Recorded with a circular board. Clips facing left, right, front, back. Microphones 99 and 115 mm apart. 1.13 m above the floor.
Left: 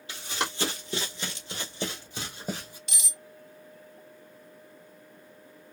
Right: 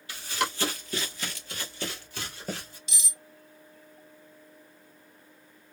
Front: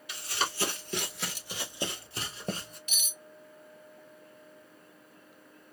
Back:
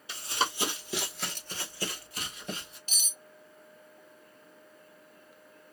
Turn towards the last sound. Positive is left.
turn(degrees=125)